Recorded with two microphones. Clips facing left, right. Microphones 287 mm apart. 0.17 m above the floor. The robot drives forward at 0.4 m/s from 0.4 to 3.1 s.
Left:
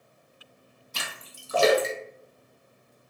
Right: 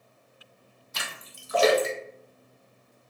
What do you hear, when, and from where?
0.9 s a splash: 40° left (ahead or behind), 0.7 m; by 2.9 s 20° left (ahead or behind), 1.2 m